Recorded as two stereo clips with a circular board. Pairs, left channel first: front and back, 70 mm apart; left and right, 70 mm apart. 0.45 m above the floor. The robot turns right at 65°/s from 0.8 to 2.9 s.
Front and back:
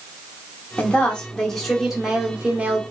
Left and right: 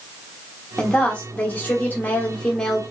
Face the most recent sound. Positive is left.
turn(degrees=165)